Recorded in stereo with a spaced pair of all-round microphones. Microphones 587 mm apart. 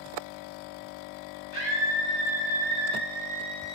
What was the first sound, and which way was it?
A scream, 65° left (ahead or behind).